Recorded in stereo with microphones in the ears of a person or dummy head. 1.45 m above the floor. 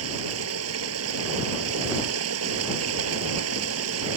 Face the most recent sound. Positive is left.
turn(degrees=-80)